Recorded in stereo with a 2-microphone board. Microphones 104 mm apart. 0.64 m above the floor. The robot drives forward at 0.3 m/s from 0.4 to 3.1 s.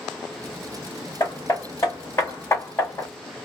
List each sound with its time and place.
1.2 s hammering: 35° left (ahead or behind), 1.4 m; by 3.1 s 25° left (ahead or behind), 1.8 m